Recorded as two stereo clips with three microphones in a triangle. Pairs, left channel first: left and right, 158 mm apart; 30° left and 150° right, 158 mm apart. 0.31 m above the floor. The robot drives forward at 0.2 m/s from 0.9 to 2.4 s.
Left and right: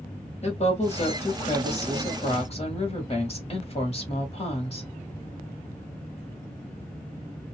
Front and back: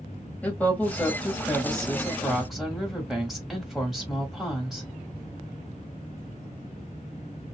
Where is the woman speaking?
105° left, 1.4 m; by 4.9 s 120° left, 1.5 m.